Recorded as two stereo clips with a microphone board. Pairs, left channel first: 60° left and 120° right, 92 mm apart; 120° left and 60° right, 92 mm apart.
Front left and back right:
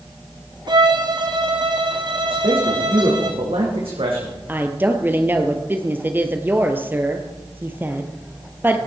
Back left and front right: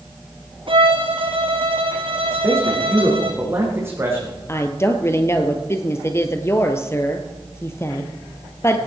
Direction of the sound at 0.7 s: 80° right.